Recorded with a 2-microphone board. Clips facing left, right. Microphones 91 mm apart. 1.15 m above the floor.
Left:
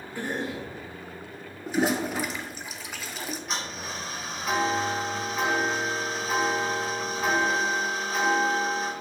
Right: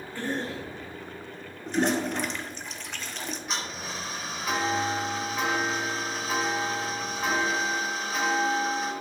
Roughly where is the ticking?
Centre.